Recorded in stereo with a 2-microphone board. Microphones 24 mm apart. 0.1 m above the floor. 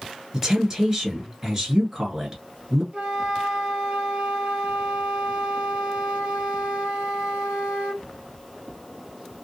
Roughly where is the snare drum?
I don't hear a snare drum.